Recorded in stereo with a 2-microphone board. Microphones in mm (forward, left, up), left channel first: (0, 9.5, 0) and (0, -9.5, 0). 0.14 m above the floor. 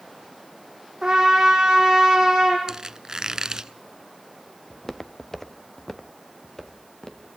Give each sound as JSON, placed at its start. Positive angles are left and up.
{"t": 1.0, "sound": "a trumpet", "side_deg": -30, "distance_m": 5.5}
{"t": 2.7, "sound": "a squeak", "side_deg": -35, "distance_m": 0.6}
{"t": 4.7, "sound": "footsteps", "side_deg": 15, "distance_m": 0.8}